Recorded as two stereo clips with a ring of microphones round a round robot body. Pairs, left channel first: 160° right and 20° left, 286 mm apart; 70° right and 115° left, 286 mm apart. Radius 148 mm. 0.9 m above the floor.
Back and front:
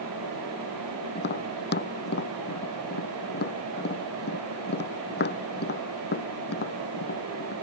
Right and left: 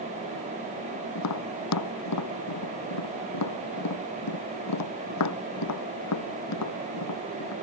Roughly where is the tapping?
Right.